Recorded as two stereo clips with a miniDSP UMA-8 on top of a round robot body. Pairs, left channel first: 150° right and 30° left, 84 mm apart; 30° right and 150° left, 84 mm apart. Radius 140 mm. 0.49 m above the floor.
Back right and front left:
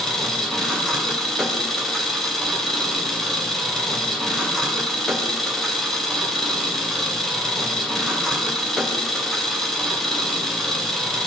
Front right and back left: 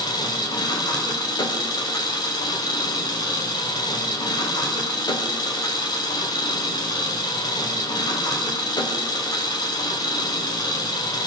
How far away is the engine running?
About 2.5 m.